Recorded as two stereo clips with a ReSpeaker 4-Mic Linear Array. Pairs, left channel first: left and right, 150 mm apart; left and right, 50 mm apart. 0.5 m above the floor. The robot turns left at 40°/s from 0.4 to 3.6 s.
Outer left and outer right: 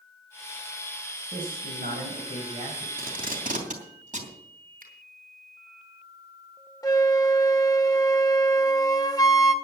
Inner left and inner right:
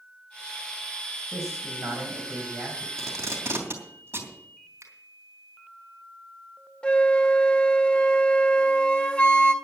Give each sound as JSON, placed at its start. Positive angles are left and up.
{"t": 1.3, "sound": "a man speaking", "azimuth_deg": -80, "distance_m": 3.5}
{"t": 3.0, "sound": "tape being pulled", "side_deg": -75, "distance_m": 3.0}
{"t": 4.8, "sound": "a finger snap", "side_deg": -70, "distance_m": 3.5}
{"t": 6.8, "sound": "a flute", "side_deg": 25, "distance_m": 1.1}